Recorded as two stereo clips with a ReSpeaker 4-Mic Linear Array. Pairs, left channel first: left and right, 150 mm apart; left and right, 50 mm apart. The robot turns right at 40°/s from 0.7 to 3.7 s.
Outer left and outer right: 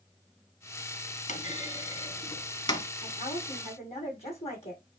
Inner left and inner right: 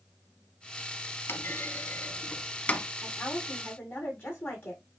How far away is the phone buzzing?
I don't hear a phone buzzing.